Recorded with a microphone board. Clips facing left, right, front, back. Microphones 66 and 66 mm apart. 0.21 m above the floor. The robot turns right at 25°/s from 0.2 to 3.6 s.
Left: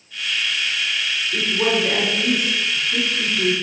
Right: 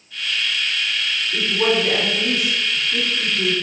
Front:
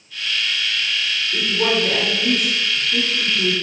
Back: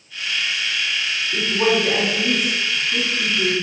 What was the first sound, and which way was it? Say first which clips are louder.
A woman speaking: right 1 dB, back 2 dB; 165° left.